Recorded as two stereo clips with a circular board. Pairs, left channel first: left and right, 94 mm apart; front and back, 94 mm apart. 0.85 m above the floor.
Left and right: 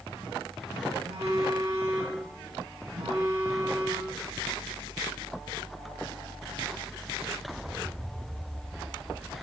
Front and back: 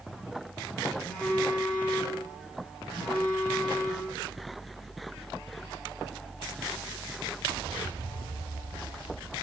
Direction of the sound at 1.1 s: 70° right.